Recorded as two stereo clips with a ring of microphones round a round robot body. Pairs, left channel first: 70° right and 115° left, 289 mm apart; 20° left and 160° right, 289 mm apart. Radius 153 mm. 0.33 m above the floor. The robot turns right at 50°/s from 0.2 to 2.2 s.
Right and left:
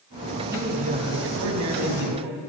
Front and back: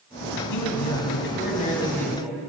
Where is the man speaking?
30° left, 3 m; by 2.4 s 115° left, 3 m.